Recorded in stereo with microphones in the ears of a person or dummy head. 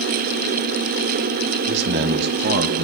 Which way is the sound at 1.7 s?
55° right (ahead or behind).